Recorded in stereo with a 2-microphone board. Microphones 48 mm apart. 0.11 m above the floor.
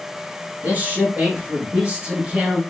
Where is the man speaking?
35° right (ahead or behind), 1.6 m; by 2.6 s 25° right (ahead or behind), 1.1 m.